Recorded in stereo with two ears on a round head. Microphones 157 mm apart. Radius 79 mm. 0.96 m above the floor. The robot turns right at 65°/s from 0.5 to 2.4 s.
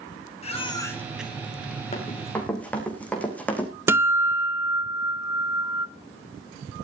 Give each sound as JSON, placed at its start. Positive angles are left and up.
{"t": 0.4, "sound": "a baby crying", "azimuth_deg": 140, "distance_m": 3.5}
{"t": 1.9, "sound": "running footsteps", "side_deg": 40, "distance_m": 4.0}
{"t": 3.9, "sound": "a guitar", "side_deg": -15, "distance_m": 0.7}